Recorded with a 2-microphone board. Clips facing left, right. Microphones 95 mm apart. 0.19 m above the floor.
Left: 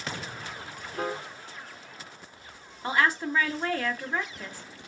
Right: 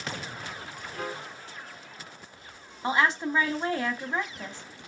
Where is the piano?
25° left (ahead or behind), 0.8 m.